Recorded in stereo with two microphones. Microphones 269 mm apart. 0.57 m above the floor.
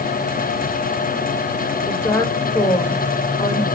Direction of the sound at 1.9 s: 10° left (ahead or behind).